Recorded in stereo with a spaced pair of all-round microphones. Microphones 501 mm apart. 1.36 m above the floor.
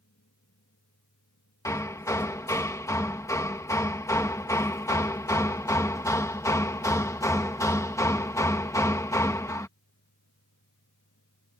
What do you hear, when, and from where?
0.0 s a fan: 30° left (ahead or behind)
1.6 s hammering: 5° left (ahead or behind)